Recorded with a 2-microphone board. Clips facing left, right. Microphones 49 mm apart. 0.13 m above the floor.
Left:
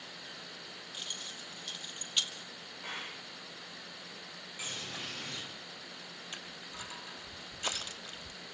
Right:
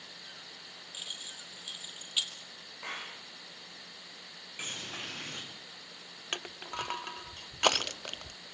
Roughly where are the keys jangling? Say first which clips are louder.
Even; centre.